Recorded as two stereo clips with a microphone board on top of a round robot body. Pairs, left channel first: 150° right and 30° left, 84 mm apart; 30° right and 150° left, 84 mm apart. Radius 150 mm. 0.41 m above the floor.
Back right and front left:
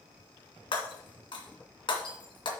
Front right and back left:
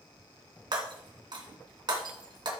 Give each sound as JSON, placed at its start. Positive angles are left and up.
{"t": 0.7, "sound": "breaking glass", "azimuth_deg": 180, "distance_m": 2.5}